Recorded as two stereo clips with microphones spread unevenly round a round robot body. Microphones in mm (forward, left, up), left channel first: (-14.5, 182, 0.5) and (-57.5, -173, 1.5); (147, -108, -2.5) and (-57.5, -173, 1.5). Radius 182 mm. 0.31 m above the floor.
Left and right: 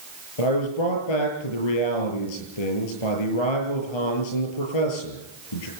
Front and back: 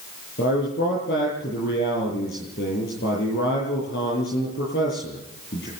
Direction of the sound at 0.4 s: 80° left.